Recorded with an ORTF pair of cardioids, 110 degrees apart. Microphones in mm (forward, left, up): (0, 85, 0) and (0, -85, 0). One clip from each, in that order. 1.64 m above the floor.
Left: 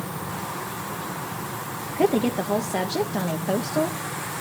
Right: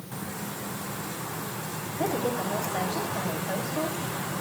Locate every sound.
1.9 s a woman speaking: 60° left, 0.9 m